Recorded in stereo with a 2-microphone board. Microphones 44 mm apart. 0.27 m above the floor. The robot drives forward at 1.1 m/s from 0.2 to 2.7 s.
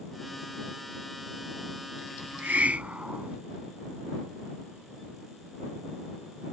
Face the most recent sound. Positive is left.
turn(degrees=-35)  # may be behind; listen again after turning